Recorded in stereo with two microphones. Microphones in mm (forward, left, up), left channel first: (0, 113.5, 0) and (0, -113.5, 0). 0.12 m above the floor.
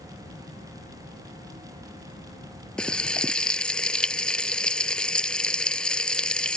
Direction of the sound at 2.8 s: 5° left (ahead or behind).